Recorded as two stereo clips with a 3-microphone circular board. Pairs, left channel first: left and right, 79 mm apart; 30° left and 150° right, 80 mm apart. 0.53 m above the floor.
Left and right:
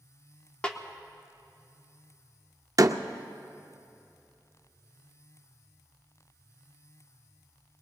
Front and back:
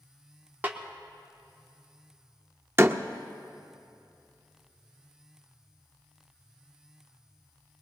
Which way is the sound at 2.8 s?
100° right.